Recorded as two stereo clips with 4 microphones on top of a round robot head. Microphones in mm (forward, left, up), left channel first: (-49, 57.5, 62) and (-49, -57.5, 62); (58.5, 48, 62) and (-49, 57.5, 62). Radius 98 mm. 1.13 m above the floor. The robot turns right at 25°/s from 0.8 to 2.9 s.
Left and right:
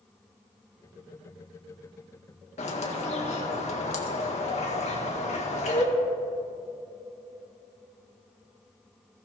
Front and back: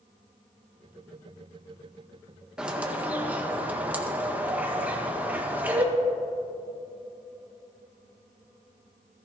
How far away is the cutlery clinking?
I don't hear cutlery clinking.